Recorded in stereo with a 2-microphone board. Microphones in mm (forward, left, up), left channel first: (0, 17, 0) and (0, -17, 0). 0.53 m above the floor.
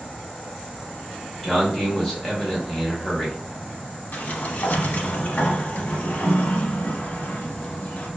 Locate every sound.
1.4 s a man speaking: 5° left (ahead or behind), 1.1 m
4.1 s a sliding door: 60° left (ahead or behind), 0.7 m